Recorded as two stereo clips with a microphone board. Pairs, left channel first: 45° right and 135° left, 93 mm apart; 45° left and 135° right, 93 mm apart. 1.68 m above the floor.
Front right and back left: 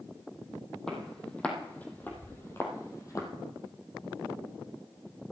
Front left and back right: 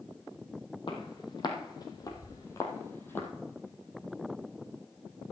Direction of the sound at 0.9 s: 35° left.